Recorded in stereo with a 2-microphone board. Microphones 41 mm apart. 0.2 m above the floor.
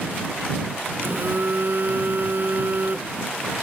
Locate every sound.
1.0 s a phone buzzing: 55° right (ahead or behind)